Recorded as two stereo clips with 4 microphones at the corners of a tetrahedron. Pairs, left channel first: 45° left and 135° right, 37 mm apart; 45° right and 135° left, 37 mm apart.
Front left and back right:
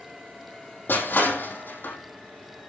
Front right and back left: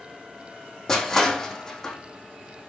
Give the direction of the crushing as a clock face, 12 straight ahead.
11 o'clock.